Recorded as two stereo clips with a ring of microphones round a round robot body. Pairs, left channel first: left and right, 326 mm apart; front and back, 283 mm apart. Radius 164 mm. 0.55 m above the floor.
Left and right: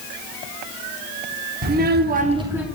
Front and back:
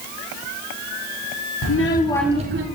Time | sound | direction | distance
1.6 | a child speaking | 30° right | 0.9 m